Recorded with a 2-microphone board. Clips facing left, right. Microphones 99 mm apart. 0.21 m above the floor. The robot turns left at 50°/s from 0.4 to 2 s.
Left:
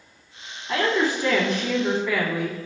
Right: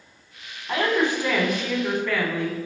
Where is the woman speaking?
130° right, 1.2 m; by 2.6 s 165° left, 1.2 m.